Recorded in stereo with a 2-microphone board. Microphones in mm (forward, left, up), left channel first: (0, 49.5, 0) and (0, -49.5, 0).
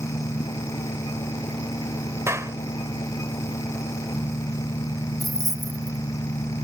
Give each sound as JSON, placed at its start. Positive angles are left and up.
{"t": 0.0, "sound": "an engine running", "side_deg": 50}
{"t": 2.3, "sound": "a clap", "side_deg": -30}
{"t": 5.2, "sound": "keys jangling", "side_deg": -35}